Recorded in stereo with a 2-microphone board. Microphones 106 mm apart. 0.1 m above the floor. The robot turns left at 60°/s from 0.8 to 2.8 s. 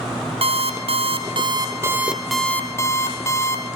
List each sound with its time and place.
0.4 s an alarm clock: 90° right, 1.8 m; by 3.6 s 150° left, 1.8 m